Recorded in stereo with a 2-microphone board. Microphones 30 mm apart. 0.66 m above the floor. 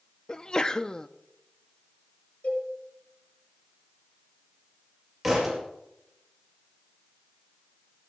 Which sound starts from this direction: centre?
A thud, at 5.2 s.